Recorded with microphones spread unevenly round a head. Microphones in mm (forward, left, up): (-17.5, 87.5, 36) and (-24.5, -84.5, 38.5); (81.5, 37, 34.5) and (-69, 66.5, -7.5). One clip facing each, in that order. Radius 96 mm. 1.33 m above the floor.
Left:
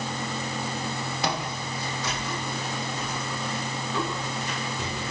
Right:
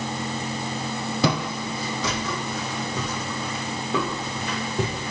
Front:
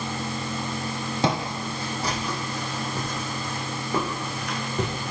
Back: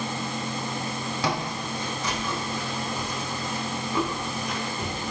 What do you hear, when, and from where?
1.2 s footsteps: 70° right, 3 m; by 5.1 s 45° right, 5 m